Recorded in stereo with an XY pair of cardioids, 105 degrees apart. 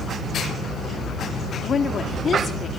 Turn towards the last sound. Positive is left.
turn(degrees=45)